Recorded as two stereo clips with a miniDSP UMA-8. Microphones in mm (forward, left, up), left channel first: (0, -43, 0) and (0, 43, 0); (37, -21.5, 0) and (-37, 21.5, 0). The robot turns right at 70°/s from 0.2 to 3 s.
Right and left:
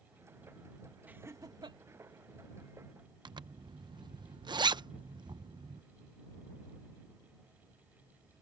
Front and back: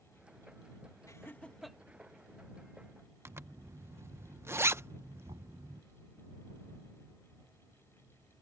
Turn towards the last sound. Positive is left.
turn(degrees=125)